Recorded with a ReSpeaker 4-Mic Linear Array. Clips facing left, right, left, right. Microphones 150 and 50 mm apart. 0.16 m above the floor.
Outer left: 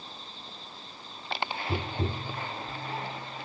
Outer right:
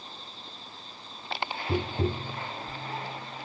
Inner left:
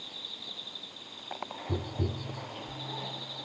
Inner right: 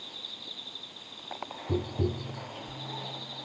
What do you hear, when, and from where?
1.7 s tapping: 20° right (ahead or behind), 0.8 m